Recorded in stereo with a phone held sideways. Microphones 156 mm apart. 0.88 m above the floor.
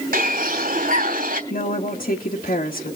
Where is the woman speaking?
60° left (ahead or behind), 1.6 m.